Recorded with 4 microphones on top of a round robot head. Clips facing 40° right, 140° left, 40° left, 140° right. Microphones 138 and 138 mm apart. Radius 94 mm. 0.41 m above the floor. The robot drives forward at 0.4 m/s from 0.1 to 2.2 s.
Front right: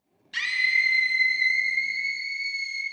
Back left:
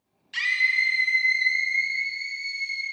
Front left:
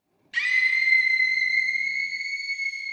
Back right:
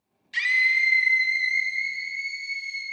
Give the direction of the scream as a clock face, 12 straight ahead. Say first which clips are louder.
Back left 1 dB, back right 1 dB; 5 o'clock.